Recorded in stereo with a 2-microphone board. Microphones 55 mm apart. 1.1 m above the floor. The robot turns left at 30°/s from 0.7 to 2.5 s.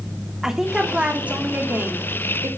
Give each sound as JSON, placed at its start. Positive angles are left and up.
{"t": 0.4, "sound": "a woman speaking", "azimuth_deg": -10, "distance_m": 3.0}